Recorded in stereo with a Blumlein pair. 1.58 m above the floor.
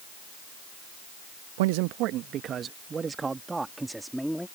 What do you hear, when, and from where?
1.6 s a man speaking: 55° right; by 4.5 s straight ahead